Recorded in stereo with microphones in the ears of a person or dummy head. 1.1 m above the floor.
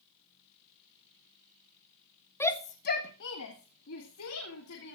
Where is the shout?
10° left (ahead or behind), 0.9 m; by 5.0 s 80° left, 3 m.